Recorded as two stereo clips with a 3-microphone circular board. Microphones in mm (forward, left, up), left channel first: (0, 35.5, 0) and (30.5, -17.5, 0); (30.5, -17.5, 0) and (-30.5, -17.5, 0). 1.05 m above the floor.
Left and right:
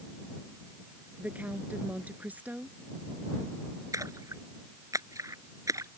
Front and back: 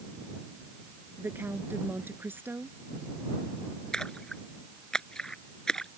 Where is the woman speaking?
125° right.